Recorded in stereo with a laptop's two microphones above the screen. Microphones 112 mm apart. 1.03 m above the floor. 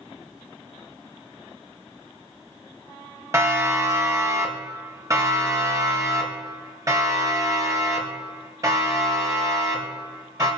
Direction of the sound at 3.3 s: 25° right (ahead or behind).